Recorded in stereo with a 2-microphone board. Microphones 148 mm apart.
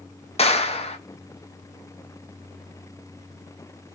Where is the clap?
45° left (ahead or behind), 0.6 m.